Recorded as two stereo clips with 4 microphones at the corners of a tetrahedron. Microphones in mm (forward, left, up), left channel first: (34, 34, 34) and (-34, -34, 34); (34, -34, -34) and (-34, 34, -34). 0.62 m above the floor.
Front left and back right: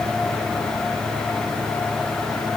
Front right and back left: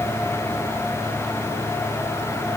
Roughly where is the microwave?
No microwave in this recording.